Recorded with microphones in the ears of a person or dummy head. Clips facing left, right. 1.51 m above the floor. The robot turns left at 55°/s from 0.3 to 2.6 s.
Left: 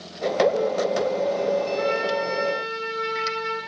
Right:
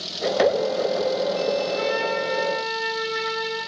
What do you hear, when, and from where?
1.7 s a trumpet: 50° right, 6.5 m; by 3.6 s 95° right, 6.5 m